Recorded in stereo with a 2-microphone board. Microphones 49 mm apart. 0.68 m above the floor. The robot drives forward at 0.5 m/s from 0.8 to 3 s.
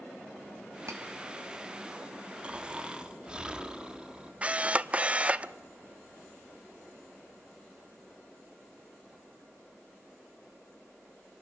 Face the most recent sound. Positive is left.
turn(degrees=-25)  # may be behind; listen again after turning